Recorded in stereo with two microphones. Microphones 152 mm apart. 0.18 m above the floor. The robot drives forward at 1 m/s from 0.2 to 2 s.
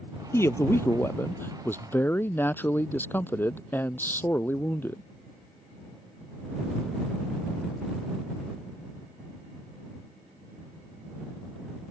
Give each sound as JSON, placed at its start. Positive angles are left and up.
{"t": 0.3, "sound": "a man speaking", "side_deg": 15}